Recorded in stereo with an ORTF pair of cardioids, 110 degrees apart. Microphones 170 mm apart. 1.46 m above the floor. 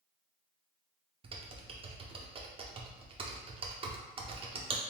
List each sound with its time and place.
1.2 s typing on a keyboard: 35° right, 0.8 m